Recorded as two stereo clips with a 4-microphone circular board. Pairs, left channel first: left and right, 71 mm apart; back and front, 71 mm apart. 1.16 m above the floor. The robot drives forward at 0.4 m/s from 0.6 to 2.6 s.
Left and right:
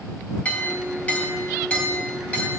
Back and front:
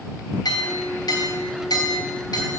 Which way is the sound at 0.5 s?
160° left.